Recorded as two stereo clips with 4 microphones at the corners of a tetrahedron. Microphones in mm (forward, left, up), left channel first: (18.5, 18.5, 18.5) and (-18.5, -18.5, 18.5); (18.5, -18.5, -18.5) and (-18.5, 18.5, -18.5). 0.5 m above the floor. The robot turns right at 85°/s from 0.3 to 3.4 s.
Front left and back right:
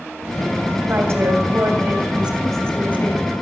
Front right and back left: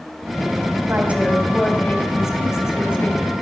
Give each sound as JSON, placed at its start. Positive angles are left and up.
{"t": 0.9, "sound": "a woman speaking", "azimuth_deg": 175, "distance_m": 3.0}